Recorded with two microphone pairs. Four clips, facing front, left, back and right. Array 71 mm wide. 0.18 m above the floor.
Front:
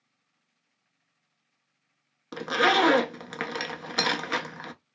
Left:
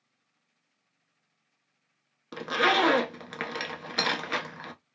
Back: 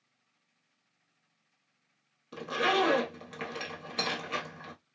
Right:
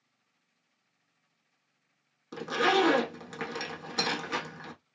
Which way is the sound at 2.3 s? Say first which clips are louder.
Left 1 dB, front 6 dB; 20° left.